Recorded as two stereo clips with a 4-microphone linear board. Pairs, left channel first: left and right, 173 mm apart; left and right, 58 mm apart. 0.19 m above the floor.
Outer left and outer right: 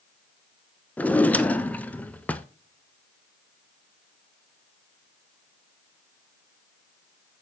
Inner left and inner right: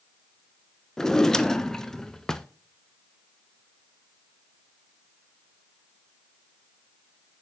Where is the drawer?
10° left (ahead or behind), 0.6 m.